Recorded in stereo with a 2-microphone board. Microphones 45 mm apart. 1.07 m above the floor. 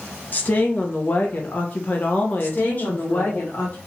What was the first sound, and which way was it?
A woman speaking, 40° left (ahead or behind).